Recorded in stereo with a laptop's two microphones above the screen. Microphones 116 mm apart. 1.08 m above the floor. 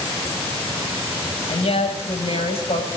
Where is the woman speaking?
65° left (ahead or behind), 6 m.